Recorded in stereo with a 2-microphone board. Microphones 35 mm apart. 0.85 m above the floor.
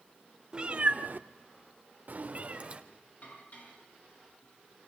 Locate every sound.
0.5 s a cat meowing: 25° right (ahead or behind), 1.2 m; by 2.8 s 40° right (ahead or behind), 1.7 m
3.2 s dishes clattering: 50° left (ahead or behind), 8 m